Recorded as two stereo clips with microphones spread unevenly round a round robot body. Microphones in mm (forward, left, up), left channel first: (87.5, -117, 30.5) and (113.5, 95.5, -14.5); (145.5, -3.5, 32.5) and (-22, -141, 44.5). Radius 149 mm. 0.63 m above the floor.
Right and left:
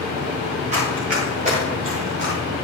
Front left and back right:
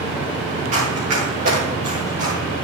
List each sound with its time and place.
0.7 s running footsteps: 150° left, 7.5 m; by 2.4 s 155° left, 5.5 m